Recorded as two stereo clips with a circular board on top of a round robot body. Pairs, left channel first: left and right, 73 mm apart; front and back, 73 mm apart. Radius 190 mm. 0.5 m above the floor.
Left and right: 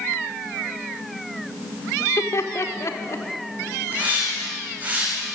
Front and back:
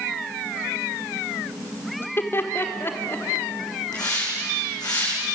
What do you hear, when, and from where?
2.0 s laughter: 50° left, 2 m
3.9 s a hiss: 20° right, 8 m